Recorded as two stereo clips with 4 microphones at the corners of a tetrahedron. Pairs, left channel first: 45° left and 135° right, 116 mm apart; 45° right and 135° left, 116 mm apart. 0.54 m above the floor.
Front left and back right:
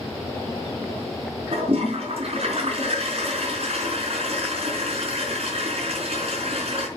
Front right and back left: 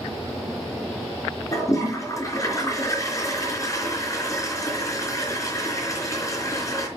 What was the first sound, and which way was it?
A toilet flushing, 105° right.